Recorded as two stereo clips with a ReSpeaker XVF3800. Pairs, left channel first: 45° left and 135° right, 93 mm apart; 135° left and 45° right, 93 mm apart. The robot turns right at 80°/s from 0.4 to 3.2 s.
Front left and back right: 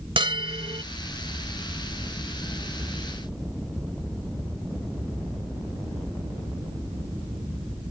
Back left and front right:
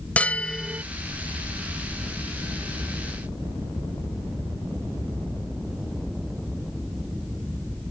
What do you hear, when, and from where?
0.2 s a bell: 150° right; by 0.8 s 115° right